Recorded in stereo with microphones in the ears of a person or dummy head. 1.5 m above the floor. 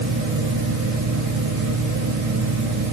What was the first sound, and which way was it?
A fan, 55° right (ahead or behind).